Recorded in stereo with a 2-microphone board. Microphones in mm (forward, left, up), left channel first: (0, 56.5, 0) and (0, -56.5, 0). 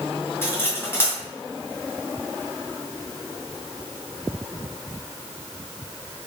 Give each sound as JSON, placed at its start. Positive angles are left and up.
{"t": 0.4, "sound": "cutlery clinking", "side_deg": 20, "distance_m": 2.5}